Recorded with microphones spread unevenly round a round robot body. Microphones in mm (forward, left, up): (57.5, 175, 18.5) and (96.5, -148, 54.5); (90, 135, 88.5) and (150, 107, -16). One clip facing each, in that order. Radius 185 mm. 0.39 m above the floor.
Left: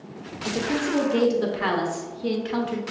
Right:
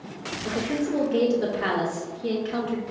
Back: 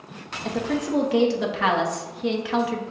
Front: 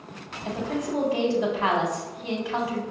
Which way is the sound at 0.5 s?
105° left.